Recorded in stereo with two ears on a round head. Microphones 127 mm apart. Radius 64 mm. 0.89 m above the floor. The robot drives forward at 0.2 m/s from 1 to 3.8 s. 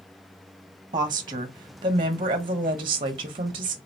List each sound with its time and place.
0.9 s a woman speaking: 30° right (ahead or behind), 0.9 m; by 3.8 s 40° right (ahead or behind), 0.7 m